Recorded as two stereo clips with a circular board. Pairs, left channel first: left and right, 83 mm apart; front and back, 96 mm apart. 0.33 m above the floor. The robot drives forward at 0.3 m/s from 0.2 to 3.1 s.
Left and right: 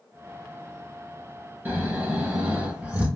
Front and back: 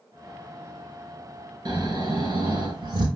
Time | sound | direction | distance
1.6 | snoring | 150° right | 1.5 m